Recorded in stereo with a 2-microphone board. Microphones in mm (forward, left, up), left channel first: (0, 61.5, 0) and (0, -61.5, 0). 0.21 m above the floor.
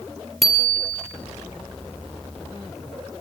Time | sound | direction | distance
0.4 | a bicycle bell | centre (ahead or behind) | 3.5 m